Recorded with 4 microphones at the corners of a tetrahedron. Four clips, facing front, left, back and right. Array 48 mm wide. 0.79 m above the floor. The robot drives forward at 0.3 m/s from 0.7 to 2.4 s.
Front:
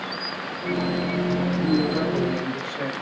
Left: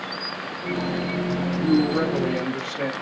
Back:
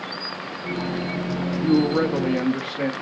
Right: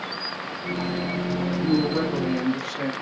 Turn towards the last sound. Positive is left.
turn(degrees=180)